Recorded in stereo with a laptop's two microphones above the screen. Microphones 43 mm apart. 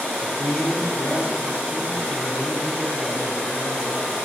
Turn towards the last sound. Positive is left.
turn(degrees=85)